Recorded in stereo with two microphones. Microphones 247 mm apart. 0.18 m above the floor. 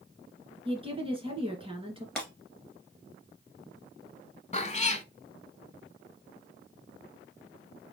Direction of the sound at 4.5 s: 30° left (ahead or behind).